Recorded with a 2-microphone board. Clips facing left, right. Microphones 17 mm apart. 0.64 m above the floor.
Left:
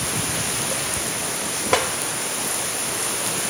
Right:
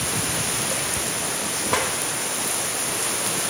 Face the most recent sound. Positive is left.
turn(degrees=40)  # may be behind; listen again after turning